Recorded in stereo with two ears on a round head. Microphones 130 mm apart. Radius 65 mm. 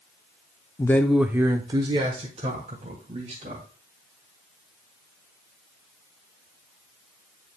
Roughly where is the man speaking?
Left.